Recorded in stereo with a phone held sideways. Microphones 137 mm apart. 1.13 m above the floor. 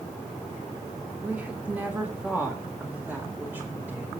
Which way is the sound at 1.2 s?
10° right (ahead or behind).